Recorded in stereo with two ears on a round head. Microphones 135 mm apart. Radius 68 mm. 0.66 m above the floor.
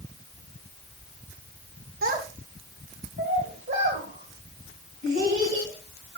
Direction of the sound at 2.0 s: 65° right (ahead or behind).